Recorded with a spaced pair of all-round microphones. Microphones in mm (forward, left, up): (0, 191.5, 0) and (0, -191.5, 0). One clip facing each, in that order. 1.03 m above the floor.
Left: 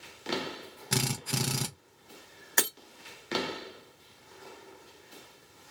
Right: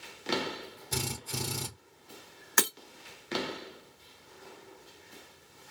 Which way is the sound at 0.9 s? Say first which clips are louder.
Left 5 dB; 80° left.